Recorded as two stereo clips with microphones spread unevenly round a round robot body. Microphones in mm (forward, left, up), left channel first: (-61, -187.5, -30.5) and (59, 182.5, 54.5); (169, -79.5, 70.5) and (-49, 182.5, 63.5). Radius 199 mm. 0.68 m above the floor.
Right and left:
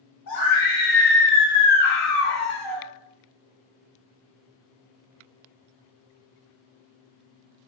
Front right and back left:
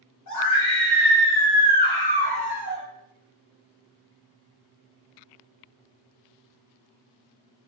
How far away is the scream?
About 1.5 m.